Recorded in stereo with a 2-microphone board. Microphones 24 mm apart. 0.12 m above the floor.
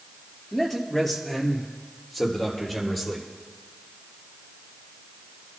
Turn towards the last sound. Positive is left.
turn(degrees=5)  # may be behind; listen again after turning